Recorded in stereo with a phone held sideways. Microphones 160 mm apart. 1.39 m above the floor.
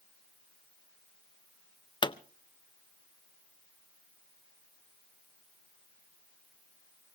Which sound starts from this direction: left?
A pop, at 2.0 s.